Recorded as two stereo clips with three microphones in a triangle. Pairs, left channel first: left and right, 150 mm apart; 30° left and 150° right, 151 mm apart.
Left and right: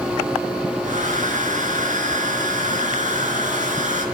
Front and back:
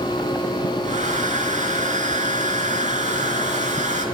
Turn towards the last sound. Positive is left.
turn(degrees=-120)